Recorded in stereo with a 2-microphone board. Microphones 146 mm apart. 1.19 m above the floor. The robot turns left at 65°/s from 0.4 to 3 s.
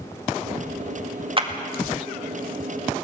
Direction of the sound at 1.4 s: 35° right (ahead or behind).